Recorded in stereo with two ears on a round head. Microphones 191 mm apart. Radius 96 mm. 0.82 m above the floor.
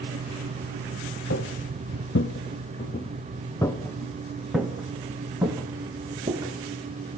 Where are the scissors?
No scissors in this recording.